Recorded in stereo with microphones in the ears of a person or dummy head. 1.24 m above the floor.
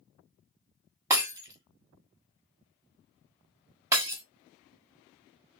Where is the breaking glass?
15° right (ahead or behind), 1.3 m.